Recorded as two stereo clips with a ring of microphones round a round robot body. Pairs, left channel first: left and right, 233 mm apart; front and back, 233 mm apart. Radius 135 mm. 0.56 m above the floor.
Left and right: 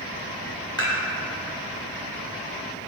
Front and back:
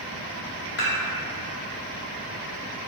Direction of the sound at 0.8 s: 15° left.